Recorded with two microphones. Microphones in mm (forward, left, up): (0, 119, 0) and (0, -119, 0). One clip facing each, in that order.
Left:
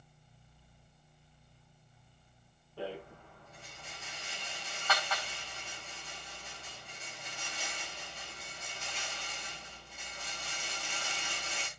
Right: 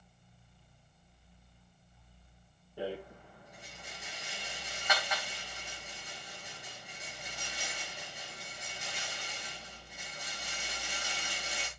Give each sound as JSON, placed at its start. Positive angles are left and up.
{"t": 2.8, "sound": "a rattle", "side_deg": -15, "distance_m": 9.5}